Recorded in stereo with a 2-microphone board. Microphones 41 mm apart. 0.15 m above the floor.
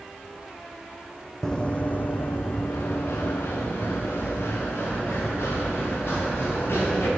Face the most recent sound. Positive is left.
turn(degrees=85)